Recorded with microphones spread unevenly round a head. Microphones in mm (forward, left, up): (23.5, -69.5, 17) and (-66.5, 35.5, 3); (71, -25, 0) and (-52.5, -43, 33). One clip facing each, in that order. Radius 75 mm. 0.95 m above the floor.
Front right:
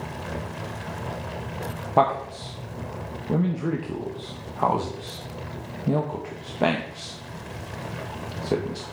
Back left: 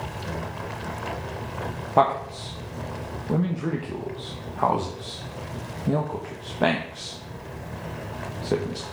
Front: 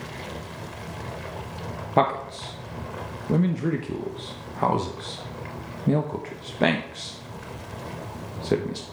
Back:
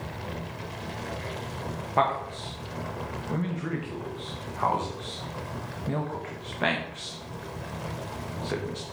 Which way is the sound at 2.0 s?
40° left.